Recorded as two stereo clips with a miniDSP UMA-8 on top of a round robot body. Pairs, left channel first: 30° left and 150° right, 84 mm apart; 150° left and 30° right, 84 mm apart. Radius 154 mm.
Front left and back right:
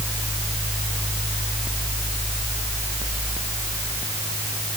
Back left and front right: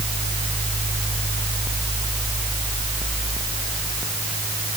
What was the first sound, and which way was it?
Only background noise.